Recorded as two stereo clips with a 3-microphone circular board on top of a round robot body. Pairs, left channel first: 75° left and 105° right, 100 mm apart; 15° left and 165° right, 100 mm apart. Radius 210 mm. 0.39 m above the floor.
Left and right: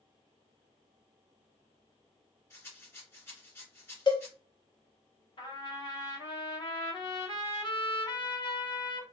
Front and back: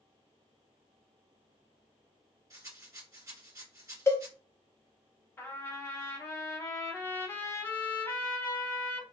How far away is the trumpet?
About 1.5 m.